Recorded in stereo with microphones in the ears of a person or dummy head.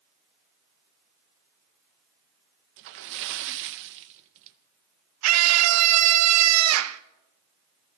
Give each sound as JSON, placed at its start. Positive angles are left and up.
{"t": 2.8, "sound": "a splash", "side_deg": -65, "distance_m": 0.8}
{"t": 5.2, "sound": "a scream", "side_deg": -85, "distance_m": 0.6}